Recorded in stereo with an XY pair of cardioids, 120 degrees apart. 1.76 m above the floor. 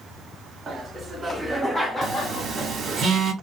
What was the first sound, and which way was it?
Laughter, 35° right.